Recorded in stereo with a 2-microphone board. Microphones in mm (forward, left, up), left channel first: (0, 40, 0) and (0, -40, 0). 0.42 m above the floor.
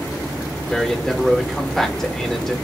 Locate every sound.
0.7 s a man speaking: 5° left (ahead or behind), 0.8 m